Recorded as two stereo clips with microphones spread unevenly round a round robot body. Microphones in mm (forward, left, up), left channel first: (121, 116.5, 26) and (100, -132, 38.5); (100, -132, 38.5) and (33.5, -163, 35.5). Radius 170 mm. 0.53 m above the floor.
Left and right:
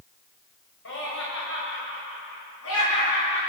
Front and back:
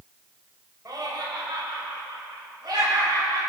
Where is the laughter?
135° left, 3 m.